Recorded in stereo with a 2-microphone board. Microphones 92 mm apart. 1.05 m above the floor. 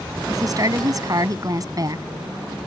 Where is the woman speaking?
40° right (ahead or behind).